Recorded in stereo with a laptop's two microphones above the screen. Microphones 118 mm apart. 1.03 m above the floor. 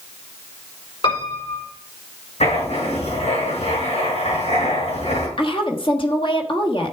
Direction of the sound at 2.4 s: 75° left (ahead or behind).